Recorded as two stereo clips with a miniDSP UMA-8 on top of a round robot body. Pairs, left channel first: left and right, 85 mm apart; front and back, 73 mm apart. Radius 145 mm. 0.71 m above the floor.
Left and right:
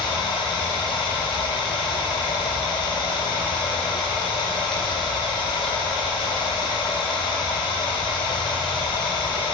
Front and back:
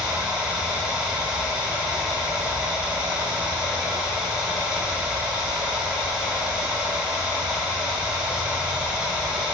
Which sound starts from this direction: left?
Running water, at 0.0 s.